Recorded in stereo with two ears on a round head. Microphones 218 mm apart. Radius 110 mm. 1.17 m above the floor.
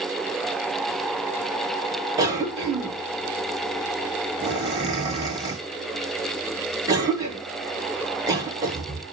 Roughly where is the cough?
Centre.